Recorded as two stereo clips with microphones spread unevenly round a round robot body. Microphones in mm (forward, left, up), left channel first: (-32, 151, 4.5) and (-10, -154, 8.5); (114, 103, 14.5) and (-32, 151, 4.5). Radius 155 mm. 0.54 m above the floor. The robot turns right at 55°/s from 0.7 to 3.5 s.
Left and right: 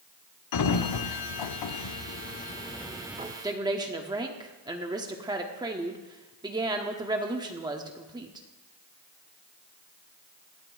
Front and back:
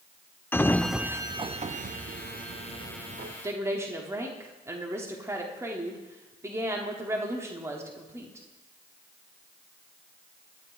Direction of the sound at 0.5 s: 65° left.